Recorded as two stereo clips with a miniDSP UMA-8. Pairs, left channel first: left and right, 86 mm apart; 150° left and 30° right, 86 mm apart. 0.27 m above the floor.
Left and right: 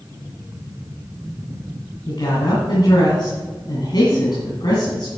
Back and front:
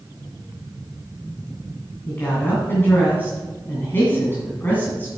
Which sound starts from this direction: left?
A woman speaking, at 2.1 s.